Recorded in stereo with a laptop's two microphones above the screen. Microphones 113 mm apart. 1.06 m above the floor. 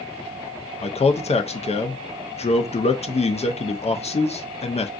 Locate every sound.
0.8 s a man speaking: 70° left (ahead or behind), 0.5 m